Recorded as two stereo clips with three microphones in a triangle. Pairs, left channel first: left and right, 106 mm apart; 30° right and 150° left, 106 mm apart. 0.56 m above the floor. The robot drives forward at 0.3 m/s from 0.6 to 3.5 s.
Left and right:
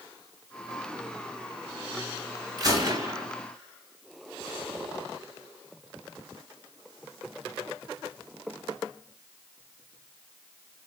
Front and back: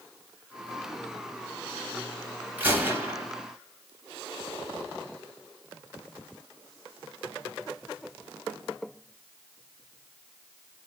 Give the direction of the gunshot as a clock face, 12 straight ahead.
5 o'clock.